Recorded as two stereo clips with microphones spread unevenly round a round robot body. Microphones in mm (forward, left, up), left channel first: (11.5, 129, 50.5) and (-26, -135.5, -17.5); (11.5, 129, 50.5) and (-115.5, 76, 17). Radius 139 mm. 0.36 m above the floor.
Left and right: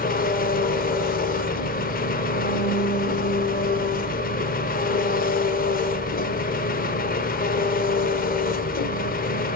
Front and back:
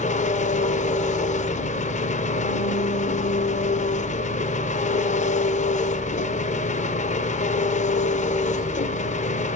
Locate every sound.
0.0 s an engine running: 20° left, 1.2 m